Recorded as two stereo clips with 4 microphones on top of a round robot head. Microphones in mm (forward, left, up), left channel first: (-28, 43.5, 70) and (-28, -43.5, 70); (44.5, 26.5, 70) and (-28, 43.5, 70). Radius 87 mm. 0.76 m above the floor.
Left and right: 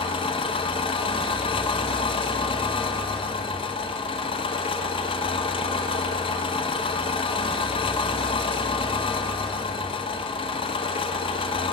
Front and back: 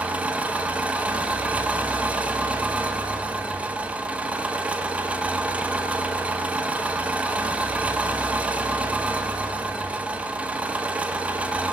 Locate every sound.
0.0 s an engine running: 95° left, 1.0 m